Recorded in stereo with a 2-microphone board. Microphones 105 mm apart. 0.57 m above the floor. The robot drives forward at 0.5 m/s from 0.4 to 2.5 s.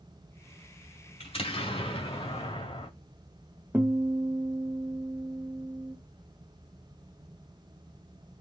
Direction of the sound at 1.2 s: 75° left (ahead or behind).